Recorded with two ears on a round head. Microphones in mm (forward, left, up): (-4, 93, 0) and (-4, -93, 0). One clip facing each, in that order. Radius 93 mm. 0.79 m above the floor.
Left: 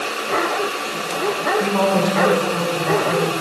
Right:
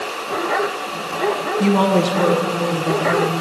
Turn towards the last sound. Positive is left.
turn(degrees=-45)  # may be behind; listen again after turning